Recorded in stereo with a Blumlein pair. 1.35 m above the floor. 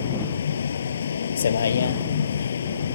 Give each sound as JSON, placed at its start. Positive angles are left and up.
{"t": 0.0, "sound": "a vehicle", "azimuth_deg": 70}